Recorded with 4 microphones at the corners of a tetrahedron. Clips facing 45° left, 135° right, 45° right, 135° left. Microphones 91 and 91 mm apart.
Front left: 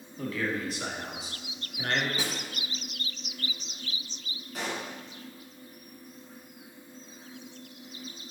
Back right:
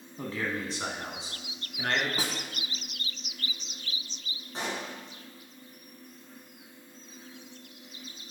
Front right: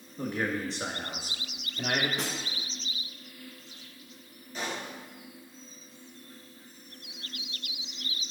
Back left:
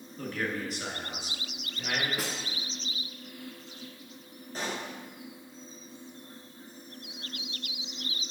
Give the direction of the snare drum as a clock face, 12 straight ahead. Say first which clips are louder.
Even, even; 5 o'clock.